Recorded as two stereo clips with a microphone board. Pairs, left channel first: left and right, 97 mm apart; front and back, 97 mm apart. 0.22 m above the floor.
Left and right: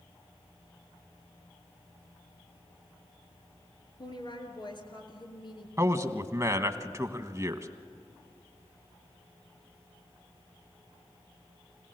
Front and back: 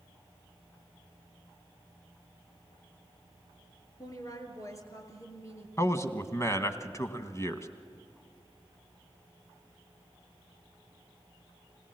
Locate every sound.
4.0 s a woman speaking: 50° left, 3 m; by 5.7 s 60° left, 4 m
5.8 s a man speaking: 45° right, 1.3 m